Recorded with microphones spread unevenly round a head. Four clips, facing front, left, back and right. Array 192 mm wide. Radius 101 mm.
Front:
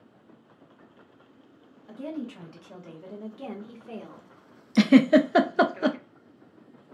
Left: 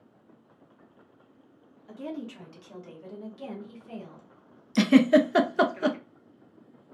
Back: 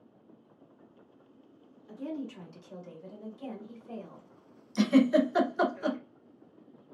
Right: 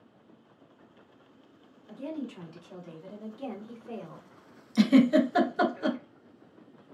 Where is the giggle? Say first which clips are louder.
Left 2 dB, front 6 dB; 25° left, 0.5 m.